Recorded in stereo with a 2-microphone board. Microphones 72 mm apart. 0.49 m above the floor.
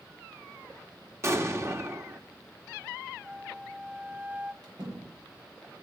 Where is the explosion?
35° right (ahead or behind), 1.5 m.